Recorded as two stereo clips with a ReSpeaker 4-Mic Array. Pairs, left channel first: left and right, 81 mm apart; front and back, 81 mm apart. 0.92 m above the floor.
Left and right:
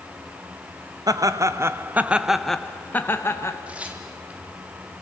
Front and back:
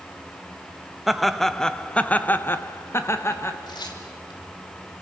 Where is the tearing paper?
15° right, 2.5 m.